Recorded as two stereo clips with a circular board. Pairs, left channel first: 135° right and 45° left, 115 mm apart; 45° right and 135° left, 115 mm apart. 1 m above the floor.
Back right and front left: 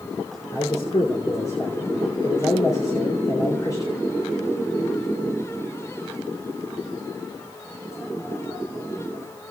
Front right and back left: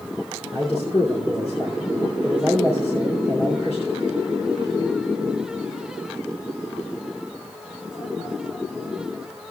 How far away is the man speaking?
About 2.5 m.